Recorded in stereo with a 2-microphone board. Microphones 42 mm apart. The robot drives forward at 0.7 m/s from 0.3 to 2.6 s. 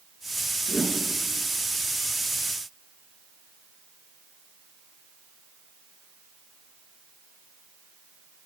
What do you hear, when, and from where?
0.7 s a whoosh: 25° left (ahead or behind), 4.5 m